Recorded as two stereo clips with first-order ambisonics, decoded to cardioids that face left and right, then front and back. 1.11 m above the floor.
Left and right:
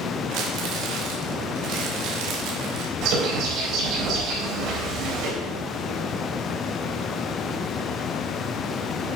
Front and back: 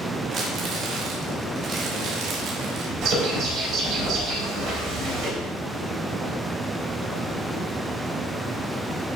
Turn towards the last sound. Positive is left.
turn(degrees=-130)